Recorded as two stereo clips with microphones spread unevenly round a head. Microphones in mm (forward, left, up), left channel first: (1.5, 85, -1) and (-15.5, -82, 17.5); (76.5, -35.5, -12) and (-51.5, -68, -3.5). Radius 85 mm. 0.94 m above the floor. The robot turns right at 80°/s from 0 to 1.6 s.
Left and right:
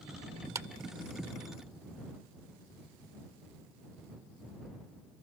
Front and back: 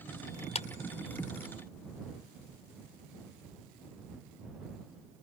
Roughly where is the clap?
Ahead right.